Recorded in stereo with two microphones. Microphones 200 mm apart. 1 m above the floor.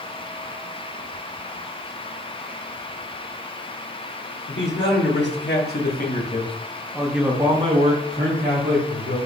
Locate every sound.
4.5 s a man speaking: 70° left (ahead or behind), 1.6 m; by 9.2 s 55° right (ahead or behind), 1.4 m